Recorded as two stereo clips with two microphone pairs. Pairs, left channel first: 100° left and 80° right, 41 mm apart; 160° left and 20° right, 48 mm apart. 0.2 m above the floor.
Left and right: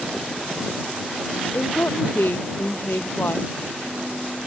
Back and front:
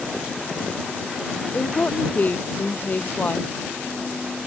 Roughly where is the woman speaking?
Left.